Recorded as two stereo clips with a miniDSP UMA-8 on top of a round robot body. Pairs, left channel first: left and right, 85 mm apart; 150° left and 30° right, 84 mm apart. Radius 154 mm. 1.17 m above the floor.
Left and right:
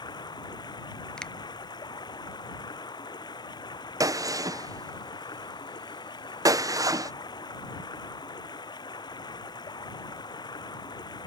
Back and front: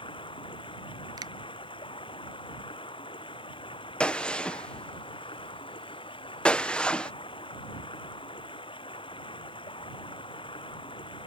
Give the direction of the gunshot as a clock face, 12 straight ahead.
4 o'clock.